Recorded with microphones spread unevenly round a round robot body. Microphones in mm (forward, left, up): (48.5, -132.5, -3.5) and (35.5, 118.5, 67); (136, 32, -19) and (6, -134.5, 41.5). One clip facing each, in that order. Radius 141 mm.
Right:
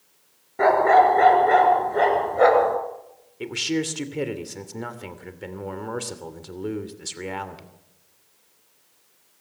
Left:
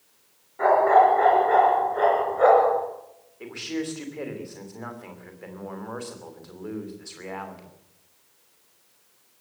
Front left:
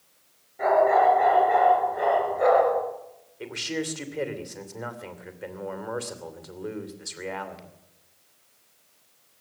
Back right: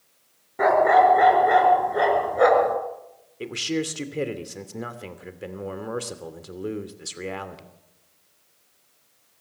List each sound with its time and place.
0.6 s a dog barking: 125° right, 3.5 m
3.4 s a man speaking: 75° right, 2.5 m